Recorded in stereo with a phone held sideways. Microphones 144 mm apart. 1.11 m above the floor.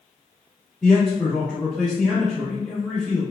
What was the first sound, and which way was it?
A man speaking, 5° left (ahead or behind).